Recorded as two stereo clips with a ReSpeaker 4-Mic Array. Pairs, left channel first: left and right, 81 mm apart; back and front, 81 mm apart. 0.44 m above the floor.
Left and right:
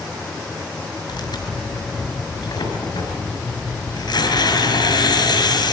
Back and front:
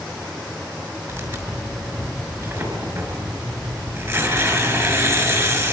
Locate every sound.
1.1 s tearing paper: 60° left, 6 m